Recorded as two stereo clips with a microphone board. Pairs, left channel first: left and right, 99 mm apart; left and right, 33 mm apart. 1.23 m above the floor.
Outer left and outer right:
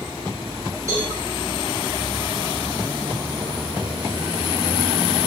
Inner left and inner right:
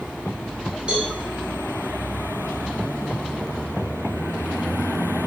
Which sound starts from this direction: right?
A cowbell, at 0.9 s.